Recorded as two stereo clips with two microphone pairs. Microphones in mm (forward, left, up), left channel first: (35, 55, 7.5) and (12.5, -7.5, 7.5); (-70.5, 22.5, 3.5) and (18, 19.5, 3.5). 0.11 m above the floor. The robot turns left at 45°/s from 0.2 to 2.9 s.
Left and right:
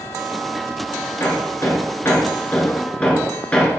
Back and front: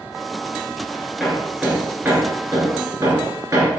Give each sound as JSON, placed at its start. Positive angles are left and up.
{"t": 1.2, "sound": "hammering", "azimuth_deg": 85, "distance_m": 1.7}